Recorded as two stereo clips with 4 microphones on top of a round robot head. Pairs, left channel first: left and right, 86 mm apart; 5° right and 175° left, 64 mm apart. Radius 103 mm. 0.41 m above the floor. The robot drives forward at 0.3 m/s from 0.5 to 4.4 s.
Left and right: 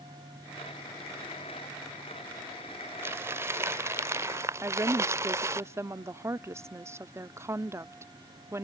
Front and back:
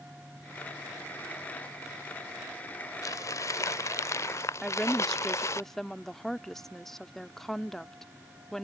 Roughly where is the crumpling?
Ahead right.